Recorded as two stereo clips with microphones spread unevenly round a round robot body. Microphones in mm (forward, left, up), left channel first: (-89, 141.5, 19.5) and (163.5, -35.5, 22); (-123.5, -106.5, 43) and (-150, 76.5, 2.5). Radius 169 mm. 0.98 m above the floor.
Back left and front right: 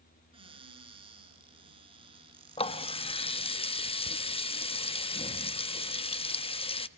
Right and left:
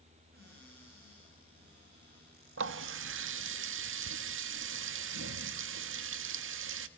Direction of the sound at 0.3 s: 40° left.